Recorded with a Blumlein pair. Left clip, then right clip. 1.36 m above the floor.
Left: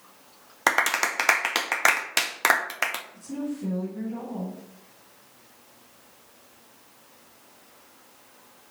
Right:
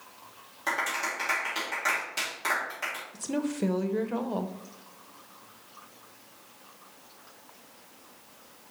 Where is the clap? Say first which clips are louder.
Left 7 dB; 50° left, 0.7 m.